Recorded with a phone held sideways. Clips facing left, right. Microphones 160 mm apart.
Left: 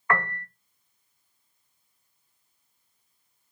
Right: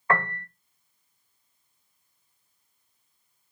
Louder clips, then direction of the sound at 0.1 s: Right 1 dB; 35° right (ahead or behind).